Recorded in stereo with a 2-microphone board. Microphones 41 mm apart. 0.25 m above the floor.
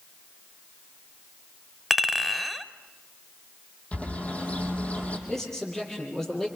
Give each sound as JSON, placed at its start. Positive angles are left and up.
{"t": 1.9, "sound": "a clink", "side_deg": 0, "distance_m": 1.0}
{"t": 3.9, "sound": "a bird", "side_deg": 35, "distance_m": 5.0}
{"t": 5.3, "sound": "a man speaking", "side_deg": 10, "distance_m": 7.0}